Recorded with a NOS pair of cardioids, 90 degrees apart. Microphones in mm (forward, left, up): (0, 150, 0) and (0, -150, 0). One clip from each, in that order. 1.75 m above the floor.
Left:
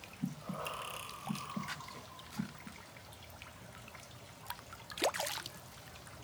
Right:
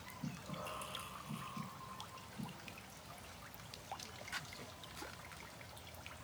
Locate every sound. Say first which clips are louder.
0.2 s breathing: left 6 dB; 65° left, 2.5 m